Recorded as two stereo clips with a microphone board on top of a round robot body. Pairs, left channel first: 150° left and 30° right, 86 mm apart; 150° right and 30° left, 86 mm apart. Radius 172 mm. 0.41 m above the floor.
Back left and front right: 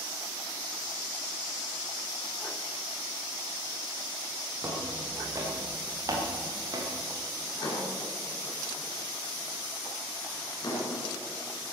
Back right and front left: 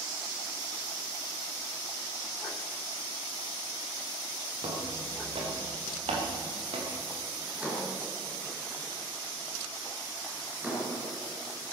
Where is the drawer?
105° left, 4.5 m.